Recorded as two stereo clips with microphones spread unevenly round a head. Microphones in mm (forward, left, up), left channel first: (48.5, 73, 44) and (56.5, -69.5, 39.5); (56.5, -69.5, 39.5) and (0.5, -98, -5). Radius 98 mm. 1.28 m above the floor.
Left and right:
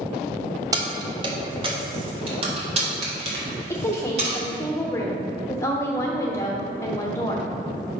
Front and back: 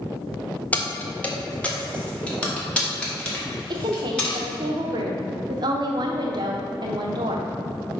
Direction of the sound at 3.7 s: 170° left.